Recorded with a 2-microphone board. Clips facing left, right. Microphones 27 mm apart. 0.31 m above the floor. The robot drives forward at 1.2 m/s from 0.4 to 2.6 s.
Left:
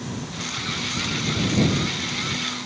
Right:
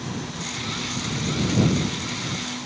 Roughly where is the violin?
I don't hear a violin.